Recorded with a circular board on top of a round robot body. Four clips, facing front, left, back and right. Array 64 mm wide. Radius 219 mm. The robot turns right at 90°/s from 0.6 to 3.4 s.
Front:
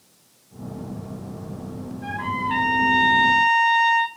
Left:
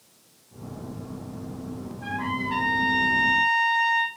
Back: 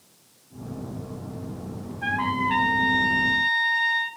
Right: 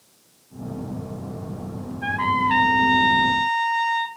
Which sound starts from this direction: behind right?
A trumpet, at 2.0 s.